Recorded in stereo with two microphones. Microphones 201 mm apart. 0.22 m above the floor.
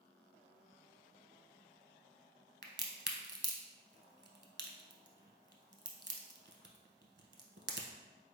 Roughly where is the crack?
Right.